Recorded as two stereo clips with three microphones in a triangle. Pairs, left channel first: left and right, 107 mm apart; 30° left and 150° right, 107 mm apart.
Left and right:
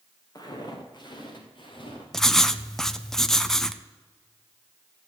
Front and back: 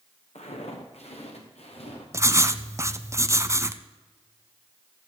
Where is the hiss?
No hiss in this recording.